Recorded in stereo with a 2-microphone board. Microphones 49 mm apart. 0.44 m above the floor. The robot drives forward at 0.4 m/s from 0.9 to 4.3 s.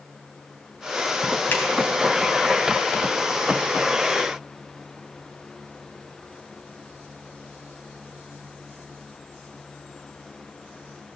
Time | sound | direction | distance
1.5 | a finger snap | 55° left (ahead or behind) | 3.5 m